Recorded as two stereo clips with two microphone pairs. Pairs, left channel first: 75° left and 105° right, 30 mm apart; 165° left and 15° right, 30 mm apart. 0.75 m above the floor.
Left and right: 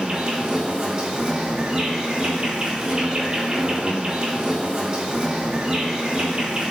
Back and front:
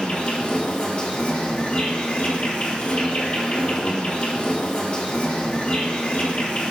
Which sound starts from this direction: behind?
An insect, at 0.0 s.